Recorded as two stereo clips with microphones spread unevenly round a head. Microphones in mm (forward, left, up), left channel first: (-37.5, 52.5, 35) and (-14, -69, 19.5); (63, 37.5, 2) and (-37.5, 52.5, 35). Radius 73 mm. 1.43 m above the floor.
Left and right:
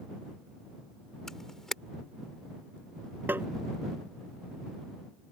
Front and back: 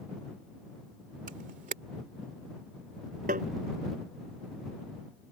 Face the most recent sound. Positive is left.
turn(degrees=-155)